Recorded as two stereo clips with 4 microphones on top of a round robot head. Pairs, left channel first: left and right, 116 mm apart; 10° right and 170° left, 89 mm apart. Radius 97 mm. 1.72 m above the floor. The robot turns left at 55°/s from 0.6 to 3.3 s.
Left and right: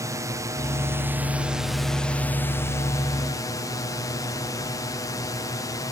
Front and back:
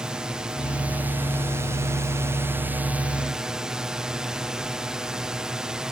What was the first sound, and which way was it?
A drone, 115° right.